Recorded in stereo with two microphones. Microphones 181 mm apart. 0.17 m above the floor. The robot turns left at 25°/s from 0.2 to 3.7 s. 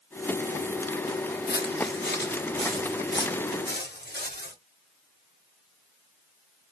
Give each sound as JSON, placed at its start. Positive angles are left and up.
{"t": 1.5, "sound": "footsteps", "side_deg": 70, "distance_m": 0.8}